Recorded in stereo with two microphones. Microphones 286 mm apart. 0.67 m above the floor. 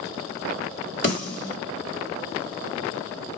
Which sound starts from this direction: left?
A snare drum, at 1.0 s.